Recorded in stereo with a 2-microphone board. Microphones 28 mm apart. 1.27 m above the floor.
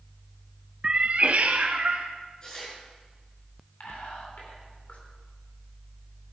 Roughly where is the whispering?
Left.